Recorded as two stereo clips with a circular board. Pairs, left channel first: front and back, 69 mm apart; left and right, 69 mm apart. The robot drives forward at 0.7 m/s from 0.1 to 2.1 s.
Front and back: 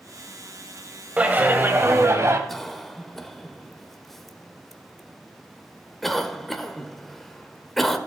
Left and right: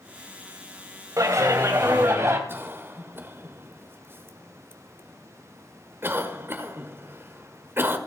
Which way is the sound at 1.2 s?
115° right.